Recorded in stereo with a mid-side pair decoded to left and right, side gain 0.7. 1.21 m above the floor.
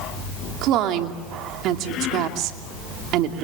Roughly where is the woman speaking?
Ahead right.